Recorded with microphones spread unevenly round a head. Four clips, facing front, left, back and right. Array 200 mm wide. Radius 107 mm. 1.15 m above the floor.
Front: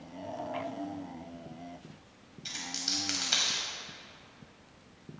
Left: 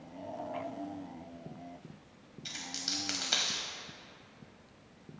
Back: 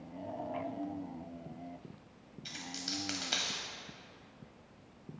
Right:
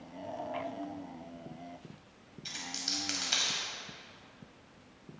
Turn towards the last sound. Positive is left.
turn(degrees=130)